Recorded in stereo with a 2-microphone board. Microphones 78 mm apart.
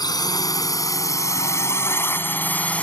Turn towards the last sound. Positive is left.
turn(degrees=15)  # may be behind; listen again after turning